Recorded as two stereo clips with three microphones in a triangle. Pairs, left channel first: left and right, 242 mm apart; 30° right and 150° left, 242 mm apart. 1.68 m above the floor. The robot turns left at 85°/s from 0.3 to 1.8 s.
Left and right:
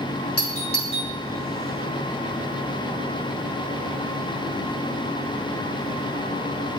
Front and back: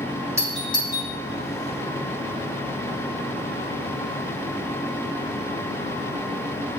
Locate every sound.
0.4 s a doorbell: 70° left, 1.9 m; by 1.1 s 10° left, 1.9 m